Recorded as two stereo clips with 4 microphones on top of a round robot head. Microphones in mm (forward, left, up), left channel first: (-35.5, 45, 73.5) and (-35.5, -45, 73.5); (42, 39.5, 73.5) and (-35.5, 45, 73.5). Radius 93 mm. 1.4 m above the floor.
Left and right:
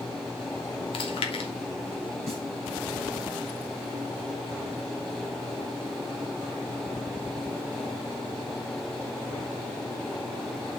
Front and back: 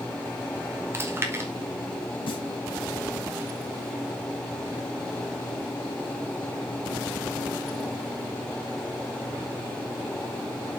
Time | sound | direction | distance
0.9 | chewing | 115° left | 1.9 m
2.3 | a snare drum | 5° left | 4.5 m